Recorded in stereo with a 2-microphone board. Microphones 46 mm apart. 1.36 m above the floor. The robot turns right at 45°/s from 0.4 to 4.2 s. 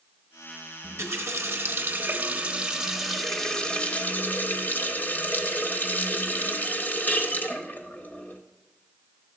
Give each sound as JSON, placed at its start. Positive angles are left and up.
{"t": 0.8, "sound": "a running tap", "azimuth_deg": -100, "distance_m": 1.0}